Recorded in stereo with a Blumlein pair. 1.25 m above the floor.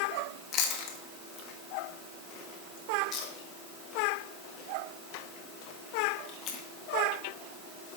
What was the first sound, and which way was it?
Chewing, 35° left.